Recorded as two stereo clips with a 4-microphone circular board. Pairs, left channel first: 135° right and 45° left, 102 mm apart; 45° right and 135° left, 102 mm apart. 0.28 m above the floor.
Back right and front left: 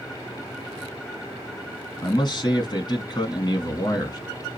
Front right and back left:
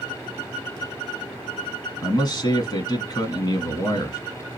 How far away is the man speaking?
About 2.5 m.